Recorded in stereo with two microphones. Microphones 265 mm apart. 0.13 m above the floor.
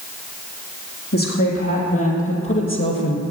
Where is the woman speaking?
65° left (ahead or behind), 4.5 m; by 3.2 s 45° left (ahead or behind), 2.5 m.